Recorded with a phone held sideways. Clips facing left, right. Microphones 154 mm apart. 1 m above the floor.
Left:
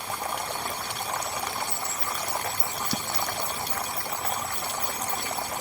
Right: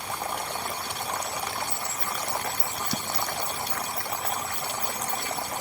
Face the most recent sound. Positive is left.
turn(degrees=-75)  # may be behind; listen again after turning